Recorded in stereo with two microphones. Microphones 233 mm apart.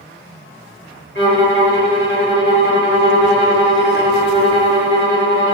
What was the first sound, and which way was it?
A violin, 60° left (ahead or behind).